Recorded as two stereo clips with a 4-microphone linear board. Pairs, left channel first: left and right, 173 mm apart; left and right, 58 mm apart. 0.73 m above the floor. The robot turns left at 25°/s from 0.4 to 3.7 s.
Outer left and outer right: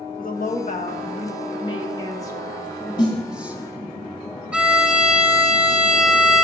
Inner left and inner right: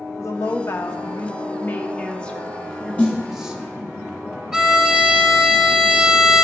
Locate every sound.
0.2 s a woman speaking: 65° left, 1.0 m; by 3.6 s 15° right, 1.0 m
3.0 s a snare drum: 25° left (ahead or behind), 1.2 m; by 3.2 s 30° left (ahead or behind), 1.2 m
4.5 s a violin: 5° right (ahead or behind), 1.0 m